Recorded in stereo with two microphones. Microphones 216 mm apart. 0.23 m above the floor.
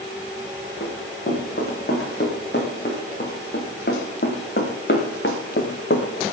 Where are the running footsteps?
50° left (ahead or behind), 5 m; by 6.2 s 60° left (ahead or behind), 2.0 m.